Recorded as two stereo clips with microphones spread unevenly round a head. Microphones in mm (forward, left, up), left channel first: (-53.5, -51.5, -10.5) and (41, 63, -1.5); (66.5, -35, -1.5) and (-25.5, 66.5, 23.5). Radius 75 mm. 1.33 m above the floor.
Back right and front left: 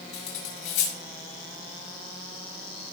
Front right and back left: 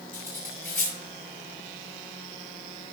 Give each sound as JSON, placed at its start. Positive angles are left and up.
{"t": 0.1, "sound": "cutlery clinking", "azimuth_deg": -125, "distance_m": 5.5}